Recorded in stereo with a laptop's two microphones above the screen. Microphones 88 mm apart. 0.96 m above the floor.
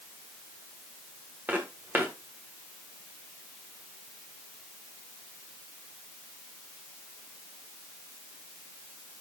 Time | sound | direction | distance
1.5 | footsteps | 20° right (ahead or behind) | 5 m